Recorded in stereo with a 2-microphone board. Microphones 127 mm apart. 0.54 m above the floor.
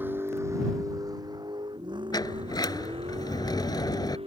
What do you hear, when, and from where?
0.0 s a vehicle: 15° right (ahead or behind); by 4.3 s 50° right (ahead or behind)
2.1 s a sliding door: 35° left (ahead or behind)